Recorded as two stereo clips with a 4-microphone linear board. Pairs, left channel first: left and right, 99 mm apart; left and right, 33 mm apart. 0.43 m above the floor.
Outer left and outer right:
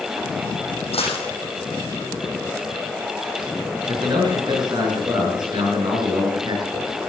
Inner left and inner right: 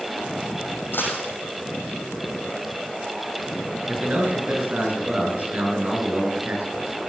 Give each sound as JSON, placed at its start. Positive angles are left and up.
{"t": 0.9, "sound": "a dropped coin", "side_deg": 90, "distance_m": 5.5}
{"t": 3.9, "sound": "a man speaking", "side_deg": -50, "distance_m": 5.0}